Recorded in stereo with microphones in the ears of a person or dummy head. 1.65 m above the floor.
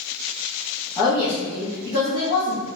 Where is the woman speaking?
15° left (ahead or behind), 1.0 m; by 2.7 s 65° left (ahead or behind), 1.3 m.